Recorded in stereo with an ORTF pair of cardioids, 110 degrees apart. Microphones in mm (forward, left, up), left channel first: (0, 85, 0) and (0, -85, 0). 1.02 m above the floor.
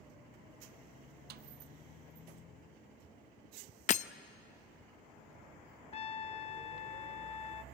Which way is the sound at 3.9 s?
45° left.